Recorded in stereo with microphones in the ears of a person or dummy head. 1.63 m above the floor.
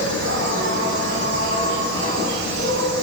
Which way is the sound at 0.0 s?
75° right (ahead or behind).